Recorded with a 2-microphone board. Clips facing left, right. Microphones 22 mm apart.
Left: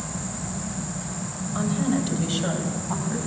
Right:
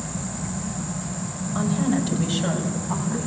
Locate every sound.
1.6 s a woman speaking: 5° left (ahead or behind), 5 m; by 3.3 s 10° left (ahead or behind), 7 m